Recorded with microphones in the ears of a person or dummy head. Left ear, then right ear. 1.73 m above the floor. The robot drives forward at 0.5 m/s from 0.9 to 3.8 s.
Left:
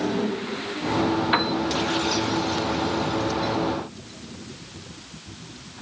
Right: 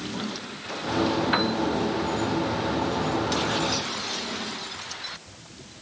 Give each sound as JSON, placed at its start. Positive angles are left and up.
{"t": 1.3, "sound": "a piano", "side_deg": 15}